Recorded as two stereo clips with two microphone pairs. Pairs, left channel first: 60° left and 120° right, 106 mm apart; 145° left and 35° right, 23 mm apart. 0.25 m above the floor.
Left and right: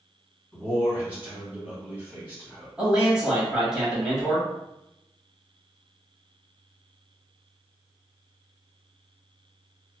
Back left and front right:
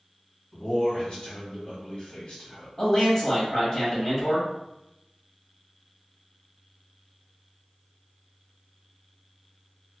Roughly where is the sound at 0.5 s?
Behind.